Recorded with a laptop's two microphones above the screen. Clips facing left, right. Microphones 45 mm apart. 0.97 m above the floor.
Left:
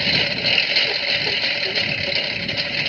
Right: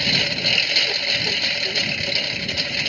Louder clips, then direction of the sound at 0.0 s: Left 1 dB; 5° left (ahead or behind).